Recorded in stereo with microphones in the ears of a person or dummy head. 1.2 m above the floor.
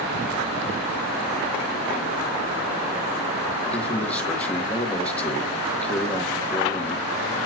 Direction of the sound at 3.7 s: 10° left (ahead or behind).